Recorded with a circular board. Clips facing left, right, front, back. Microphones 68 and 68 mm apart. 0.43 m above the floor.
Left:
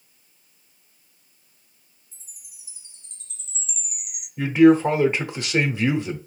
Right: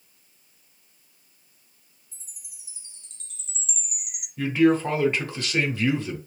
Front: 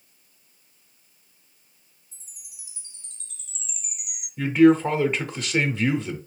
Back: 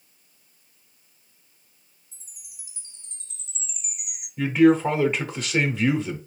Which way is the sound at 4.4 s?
85° left.